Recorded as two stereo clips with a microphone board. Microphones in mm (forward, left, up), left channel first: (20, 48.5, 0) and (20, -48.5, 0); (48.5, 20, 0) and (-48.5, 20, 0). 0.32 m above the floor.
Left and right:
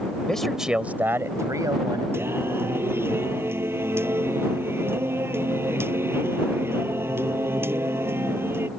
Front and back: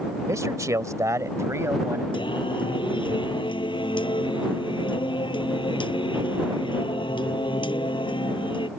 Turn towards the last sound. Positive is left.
turn(degrees=-25)